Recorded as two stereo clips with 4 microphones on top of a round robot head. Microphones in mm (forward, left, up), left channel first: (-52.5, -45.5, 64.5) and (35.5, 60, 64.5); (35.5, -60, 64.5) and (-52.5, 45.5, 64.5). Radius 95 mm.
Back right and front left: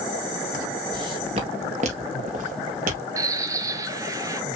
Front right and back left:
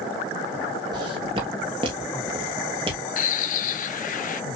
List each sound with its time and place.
0.9 s footsteps: 90° left, 1.1 m; by 3.0 s 75° left, 2.0 m
3.2 s a bird: 20° right, 0.6 m